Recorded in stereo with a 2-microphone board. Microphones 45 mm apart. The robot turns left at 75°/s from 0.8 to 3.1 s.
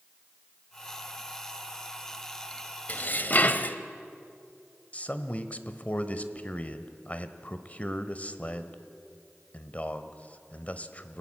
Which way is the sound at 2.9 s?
35° left (ahead or behind).